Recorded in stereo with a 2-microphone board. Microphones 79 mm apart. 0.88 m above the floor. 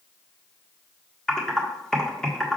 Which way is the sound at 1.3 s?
10° left (ahead or behind).